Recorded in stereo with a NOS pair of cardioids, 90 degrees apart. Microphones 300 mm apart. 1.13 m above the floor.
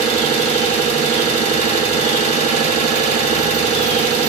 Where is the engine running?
50° right, 0.9 m.